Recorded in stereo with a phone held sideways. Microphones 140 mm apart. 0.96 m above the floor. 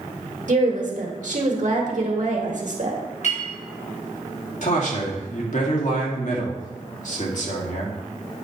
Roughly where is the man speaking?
Left.